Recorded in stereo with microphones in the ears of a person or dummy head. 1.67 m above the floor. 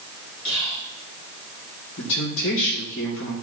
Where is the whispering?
85° left, 3.5 m.